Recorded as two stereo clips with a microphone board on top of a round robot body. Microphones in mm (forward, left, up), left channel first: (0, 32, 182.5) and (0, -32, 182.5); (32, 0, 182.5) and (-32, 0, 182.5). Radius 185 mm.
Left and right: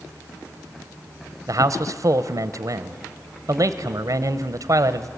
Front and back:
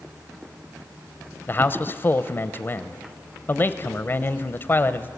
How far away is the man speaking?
About 0.6 m.